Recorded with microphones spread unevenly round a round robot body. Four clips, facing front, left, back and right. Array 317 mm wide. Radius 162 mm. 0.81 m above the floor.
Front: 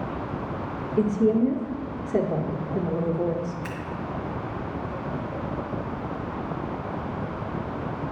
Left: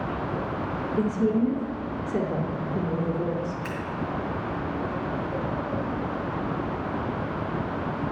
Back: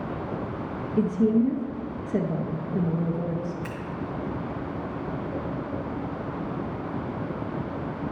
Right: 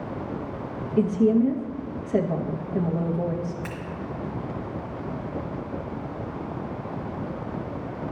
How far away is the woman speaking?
About 0.7 m.